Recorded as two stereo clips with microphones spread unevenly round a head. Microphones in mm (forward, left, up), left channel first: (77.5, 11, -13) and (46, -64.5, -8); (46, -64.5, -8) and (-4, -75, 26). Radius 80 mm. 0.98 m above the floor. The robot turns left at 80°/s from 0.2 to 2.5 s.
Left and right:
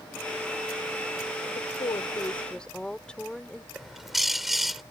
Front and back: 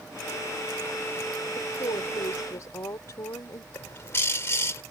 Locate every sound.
1.6 s a woman speaking: 65° left; by 3.6 s 10° right
3.7 s a bird: 25° right